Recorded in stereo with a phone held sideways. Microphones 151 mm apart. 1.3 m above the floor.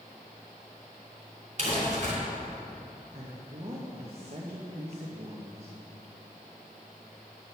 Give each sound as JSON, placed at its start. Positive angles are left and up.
{"t": 1.6, "sound": "crumpling", "side_deg": -55, "distance_m": 3.0}
{"t": 3.1, "sound": "a woman speaking", "side_deg": -45, "distance_m": 1.2}